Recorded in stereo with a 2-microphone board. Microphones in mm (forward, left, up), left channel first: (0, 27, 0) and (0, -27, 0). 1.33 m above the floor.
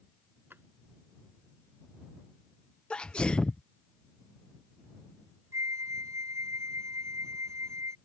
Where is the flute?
70° right (ahead or behind).